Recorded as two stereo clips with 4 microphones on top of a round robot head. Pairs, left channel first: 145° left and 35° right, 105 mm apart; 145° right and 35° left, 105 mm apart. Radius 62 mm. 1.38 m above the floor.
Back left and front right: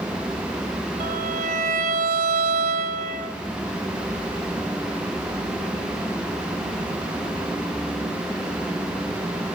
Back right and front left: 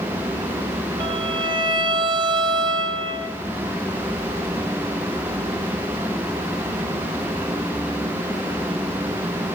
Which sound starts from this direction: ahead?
A violin, at 1.0 s.